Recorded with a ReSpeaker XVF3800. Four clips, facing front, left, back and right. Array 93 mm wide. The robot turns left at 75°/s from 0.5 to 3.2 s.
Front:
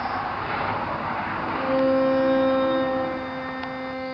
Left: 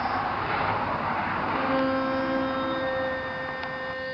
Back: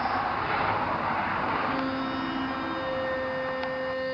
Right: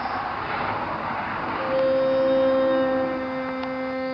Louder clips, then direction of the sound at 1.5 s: Right 5 dB, front 7 dB; 70° left.